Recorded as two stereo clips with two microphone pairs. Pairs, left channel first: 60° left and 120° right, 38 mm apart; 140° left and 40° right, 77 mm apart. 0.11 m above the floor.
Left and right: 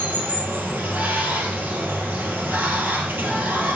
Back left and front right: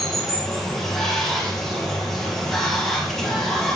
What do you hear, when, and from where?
0.0 s running water: 135° right, 2.5 m